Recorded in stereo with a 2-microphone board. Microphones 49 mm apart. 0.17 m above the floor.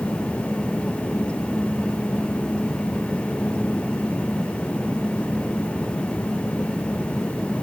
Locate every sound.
Only background noise.